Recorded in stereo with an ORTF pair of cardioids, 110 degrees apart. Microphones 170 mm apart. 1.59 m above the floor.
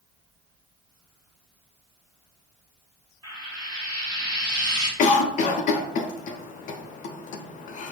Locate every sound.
3.2 s frying: 25° right, 1.1 m
5.0 s a cough: 50° left, 0.5 m